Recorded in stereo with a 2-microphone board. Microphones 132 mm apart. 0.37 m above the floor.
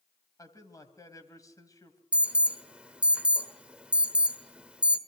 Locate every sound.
0.4 s a man speaking: 25° left (ahead or behind), 3 m
2.1 s an alarm: 10° right (ahead or behind), 1.4 m